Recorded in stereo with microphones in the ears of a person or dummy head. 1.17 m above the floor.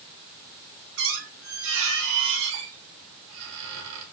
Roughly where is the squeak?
Right.